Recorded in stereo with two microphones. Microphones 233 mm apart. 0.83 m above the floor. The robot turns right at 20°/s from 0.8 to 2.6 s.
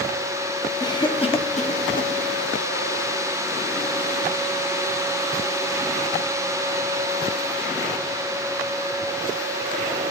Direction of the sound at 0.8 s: 15° left (ahead or behind).